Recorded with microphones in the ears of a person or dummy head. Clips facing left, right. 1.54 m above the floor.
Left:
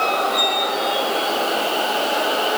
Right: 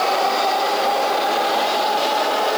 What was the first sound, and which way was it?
Only background noise.